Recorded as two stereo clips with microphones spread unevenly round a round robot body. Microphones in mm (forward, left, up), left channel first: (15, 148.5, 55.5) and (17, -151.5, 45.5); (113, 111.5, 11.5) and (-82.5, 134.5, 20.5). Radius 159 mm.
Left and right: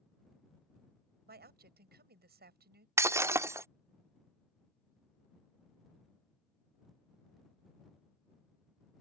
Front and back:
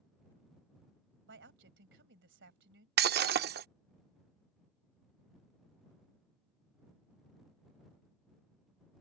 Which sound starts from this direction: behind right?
A woman speaking, at 1.3 s.